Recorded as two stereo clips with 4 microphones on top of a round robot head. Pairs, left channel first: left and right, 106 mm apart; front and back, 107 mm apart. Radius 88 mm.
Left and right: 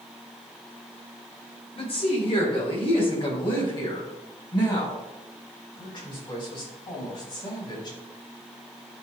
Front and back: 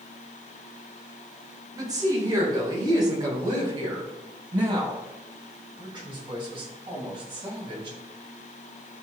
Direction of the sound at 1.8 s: 125° left.